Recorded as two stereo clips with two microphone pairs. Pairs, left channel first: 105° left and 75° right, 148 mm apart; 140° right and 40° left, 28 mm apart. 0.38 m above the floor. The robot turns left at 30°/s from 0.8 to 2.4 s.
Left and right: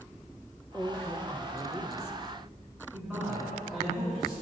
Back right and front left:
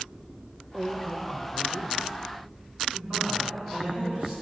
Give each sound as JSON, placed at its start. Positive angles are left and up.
{"t": 0.7, "sound": "a woman speaking", "azimuth_deg": 140, "distance_m": 1.0}
{"t": 2.9, "sound": "a man speaking", "azimuth_deg": 10, "distance_m": 4.5}